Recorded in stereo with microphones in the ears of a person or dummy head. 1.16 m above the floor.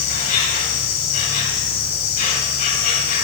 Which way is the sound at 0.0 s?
50° left (ahead or behind).